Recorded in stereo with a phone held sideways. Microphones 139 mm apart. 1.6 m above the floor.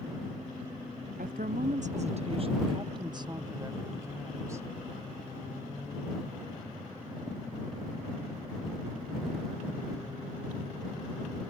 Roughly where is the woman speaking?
Right.